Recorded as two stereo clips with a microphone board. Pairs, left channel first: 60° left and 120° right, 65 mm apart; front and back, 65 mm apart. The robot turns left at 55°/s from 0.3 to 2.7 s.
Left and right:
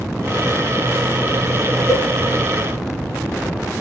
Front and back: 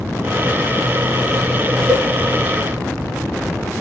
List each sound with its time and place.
1.9 s a cowbell: 105° left, 3 m; by 2.1 s 95° left, 3 m